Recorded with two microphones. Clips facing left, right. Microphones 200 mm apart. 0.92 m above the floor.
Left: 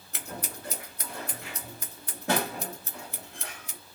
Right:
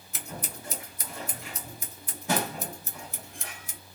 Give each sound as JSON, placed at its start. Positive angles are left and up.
{"t": 0.1, "sound": "scissors", "side_deg": 75, "distance_m": 1.3}